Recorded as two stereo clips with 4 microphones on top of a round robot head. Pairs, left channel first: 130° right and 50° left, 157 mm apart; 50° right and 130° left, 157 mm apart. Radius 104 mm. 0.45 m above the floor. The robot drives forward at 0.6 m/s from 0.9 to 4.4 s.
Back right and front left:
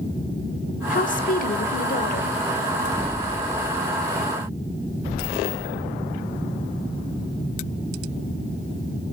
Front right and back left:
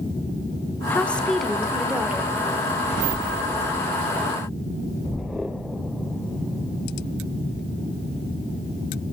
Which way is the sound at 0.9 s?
125° right.